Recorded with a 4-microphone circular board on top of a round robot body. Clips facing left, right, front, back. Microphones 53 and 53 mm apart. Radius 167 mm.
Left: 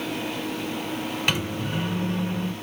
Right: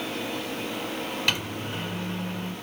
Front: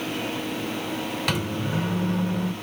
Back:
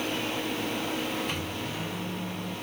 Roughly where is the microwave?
Ahead.